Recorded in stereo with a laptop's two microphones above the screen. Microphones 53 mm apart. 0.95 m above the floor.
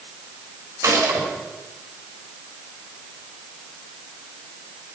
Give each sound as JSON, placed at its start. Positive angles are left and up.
{"t": 0.8, "sound": "a gunshot", "side_deg": -80, "distance_m": 5.5}